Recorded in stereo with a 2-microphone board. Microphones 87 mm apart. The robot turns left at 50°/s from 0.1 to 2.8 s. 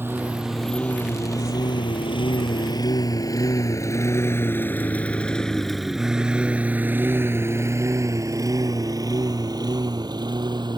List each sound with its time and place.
0.0 s a lawn mower: 25° right (ahead or behind); by 10.8 s 60° right (ahead or behind)